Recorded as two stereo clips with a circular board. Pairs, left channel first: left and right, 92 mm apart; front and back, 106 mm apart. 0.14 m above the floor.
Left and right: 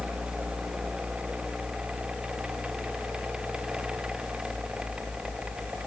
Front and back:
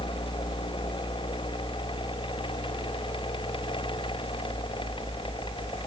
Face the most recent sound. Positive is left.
No sound to turn to.